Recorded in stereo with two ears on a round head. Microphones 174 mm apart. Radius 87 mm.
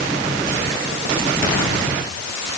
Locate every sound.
Only background noise.